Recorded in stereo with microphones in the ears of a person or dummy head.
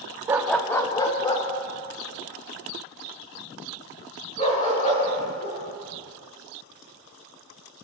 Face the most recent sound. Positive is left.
turn(degrees=35)  # may be behind; listen again after turning